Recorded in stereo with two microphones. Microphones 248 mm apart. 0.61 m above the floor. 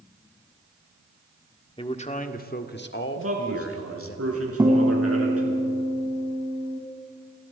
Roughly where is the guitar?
Centre.